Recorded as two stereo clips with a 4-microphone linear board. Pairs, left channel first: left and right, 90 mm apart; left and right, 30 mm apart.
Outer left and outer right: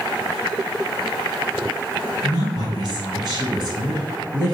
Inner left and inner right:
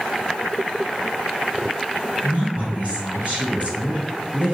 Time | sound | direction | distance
2.2 | a woman speaking | 50° right (ahead or behind) | 1.8 m